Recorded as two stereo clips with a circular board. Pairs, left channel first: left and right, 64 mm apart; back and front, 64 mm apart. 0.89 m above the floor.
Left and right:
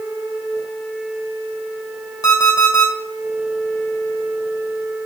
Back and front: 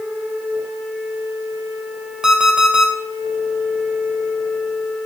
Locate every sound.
2.2 s an alarm clock: 80° left, 1.9 m